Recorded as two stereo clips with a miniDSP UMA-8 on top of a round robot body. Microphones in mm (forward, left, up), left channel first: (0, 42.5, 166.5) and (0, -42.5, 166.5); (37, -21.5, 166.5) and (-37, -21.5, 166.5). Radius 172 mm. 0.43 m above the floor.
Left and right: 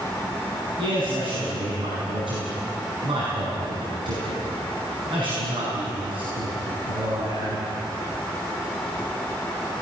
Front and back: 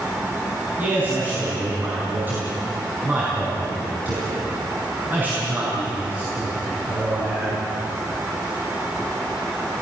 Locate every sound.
0.8 s a man speaking: 115° right, 6 m